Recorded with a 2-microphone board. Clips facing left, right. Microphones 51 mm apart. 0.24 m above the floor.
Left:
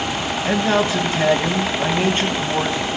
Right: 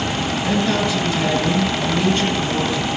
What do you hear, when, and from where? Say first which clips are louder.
0.5 s a man speaking: left 2 dB; 30° left (ahead or behind), 1.4 m